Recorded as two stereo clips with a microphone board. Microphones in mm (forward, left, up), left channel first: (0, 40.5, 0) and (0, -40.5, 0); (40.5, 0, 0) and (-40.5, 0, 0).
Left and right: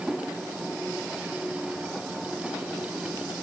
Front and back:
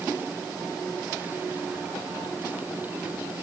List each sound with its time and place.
Only background noise.